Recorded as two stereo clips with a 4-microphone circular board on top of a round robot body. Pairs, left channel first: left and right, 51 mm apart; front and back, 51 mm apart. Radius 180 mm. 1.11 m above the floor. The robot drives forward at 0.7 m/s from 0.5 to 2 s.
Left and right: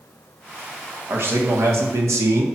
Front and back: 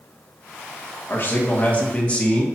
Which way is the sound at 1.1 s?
50° right.